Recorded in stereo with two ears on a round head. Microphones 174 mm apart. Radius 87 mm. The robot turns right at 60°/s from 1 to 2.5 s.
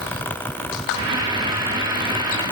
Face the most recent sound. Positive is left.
No sound to turn to.